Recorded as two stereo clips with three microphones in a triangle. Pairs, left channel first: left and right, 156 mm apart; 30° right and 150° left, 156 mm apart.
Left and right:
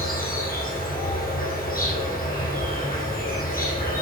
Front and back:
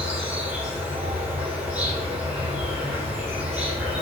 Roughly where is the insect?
Ahead left.